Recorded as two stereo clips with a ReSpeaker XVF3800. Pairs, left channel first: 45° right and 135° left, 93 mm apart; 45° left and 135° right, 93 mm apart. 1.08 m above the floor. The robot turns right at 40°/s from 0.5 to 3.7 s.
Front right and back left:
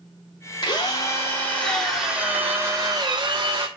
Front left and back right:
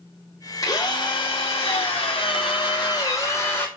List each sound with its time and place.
0.6 s a drill: 5° right, 2.5 m; by 3.7 s 115° left, 2.5 m